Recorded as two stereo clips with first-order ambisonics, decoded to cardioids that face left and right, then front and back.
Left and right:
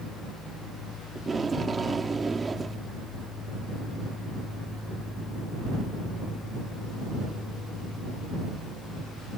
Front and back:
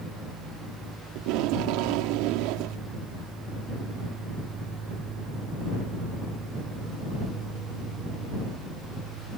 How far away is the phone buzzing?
No phone buzzing in this recording.